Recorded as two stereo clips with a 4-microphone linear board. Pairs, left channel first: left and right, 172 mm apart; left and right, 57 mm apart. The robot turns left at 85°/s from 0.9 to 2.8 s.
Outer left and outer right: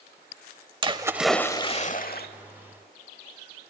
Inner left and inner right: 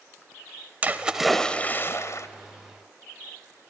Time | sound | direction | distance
0.8 | a splash | 150° right | 0.9 m